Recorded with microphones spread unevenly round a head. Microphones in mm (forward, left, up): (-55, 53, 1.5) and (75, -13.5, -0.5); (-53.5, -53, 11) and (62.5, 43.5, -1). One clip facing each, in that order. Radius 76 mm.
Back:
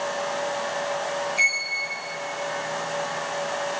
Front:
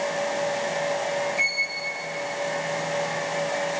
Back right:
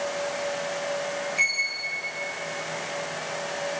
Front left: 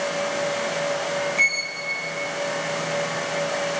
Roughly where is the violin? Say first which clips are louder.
Front 1 dB, front left 5 dB; behind left.